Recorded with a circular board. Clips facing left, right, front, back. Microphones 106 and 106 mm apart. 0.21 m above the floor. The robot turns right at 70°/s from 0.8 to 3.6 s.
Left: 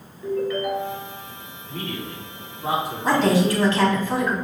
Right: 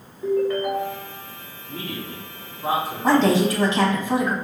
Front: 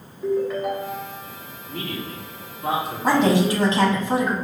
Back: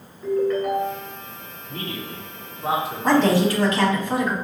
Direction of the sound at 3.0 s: 75° right.